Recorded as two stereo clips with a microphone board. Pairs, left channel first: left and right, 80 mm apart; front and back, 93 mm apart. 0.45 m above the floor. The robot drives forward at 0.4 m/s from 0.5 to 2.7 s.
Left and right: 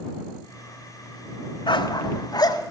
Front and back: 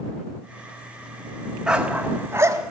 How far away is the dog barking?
About 0.8 m.